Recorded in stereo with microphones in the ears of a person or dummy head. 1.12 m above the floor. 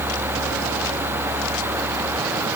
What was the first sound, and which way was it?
Only background noise.